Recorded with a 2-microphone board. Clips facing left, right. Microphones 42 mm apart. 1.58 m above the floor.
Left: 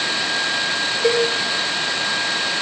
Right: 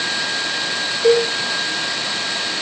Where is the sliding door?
No sliding door in this recording.